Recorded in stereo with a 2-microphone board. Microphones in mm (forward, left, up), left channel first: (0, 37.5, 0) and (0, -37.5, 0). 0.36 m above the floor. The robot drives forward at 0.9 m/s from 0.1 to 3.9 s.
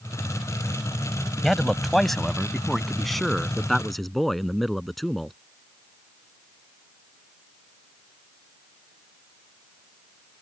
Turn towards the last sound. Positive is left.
turn(degrees=0)  # may be behind; listen again after turning